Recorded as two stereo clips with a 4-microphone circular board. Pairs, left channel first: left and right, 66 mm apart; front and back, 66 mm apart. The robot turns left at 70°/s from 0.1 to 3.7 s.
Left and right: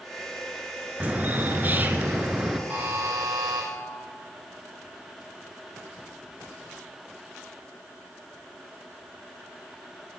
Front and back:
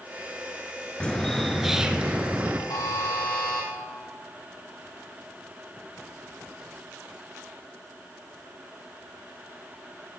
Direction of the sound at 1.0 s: 50° right.